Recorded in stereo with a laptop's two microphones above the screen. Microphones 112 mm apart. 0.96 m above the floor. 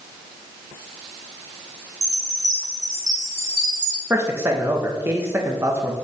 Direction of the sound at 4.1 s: 20° right (ahead or behind).